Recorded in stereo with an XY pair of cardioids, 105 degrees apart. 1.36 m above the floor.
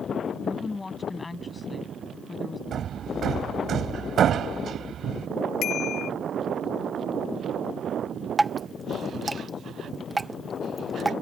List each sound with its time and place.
0.4 s a woman speaking: 25° left
2.7 s hammering: 55° right
5.6 s a bicycle bell: 65° left
8.4 s dripping: 15° right